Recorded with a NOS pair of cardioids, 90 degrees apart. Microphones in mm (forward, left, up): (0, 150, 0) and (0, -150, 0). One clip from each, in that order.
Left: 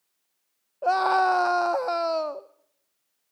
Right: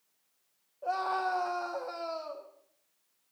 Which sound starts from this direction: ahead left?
A scream, at 0.8 s.